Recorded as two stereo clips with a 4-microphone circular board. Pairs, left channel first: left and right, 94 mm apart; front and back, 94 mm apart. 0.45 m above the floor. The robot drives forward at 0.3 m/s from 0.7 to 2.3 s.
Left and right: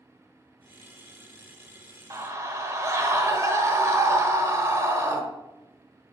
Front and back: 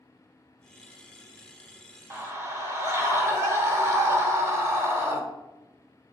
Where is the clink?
I don't hear a clink.